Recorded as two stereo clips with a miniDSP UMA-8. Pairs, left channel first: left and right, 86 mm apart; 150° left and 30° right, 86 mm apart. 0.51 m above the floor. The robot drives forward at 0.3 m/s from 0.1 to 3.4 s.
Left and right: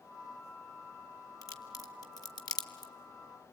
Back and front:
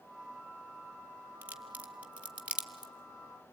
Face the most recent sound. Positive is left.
turn(degrees=50)